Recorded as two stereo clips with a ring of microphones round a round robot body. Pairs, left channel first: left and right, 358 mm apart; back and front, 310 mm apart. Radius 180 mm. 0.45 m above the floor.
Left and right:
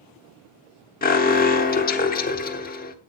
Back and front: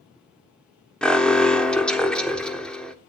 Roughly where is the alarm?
Left.